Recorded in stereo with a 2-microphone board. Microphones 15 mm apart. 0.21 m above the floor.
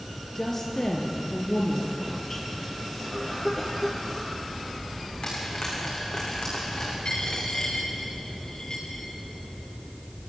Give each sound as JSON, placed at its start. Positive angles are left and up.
{"t": 0.3, "sound": "a woman speaking", "side_deg": 30, "distance_m": 5.0}
{"t": 3.0, "sound": "a cough", "side_deg": 10, "distance_m": 4.0}
{"t": 5.2, "sound": "frying", "side_deg": 60, "distance_m": 8.5}
{"t": 7.0, "sound": "a dropped coin", "side_deg": 45, "distance_m": 6.5}